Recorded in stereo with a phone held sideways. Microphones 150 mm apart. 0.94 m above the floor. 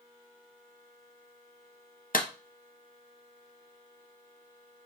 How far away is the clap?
About 0.6 m.